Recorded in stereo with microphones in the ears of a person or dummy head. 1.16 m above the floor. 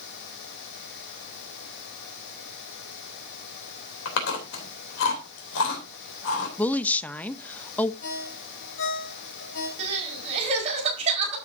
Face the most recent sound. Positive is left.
turn(degrees=-35)  # may be behind; listen again after turning